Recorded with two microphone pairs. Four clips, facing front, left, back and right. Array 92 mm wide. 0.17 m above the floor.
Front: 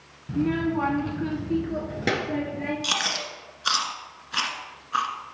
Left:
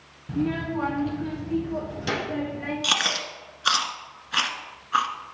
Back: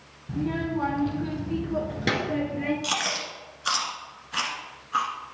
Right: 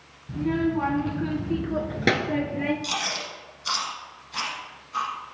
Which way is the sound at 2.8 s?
80° left.